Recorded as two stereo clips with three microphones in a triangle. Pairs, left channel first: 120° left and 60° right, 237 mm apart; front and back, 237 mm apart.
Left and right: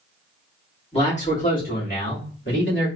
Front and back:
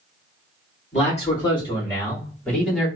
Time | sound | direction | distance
0.9 | a man speaking | 55° left | 2 m